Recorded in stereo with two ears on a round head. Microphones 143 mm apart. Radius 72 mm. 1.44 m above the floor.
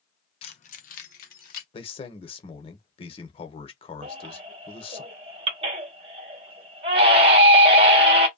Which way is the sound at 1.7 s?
35° left (ahead or behind).